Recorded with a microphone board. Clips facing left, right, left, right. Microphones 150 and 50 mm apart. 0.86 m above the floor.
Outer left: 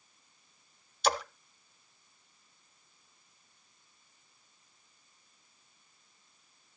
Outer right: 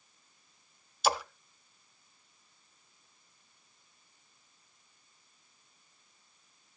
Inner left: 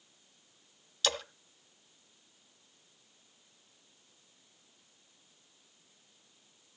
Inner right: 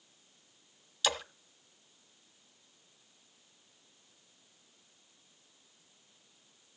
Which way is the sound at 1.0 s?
5° right (ahead or behind).